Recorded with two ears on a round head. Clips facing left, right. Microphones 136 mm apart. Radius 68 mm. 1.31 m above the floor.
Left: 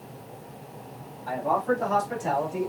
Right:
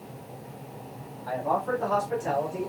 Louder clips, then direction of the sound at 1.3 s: Left 2 dB; 20° left (ahead or behind).